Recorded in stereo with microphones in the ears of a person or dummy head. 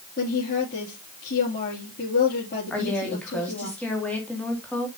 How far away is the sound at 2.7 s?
About 2.5 m.